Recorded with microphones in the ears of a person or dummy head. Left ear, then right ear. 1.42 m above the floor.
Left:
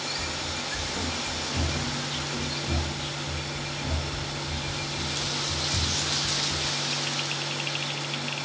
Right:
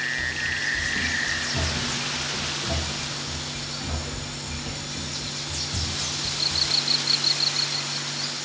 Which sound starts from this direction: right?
Running footsteps, at 0.2 s.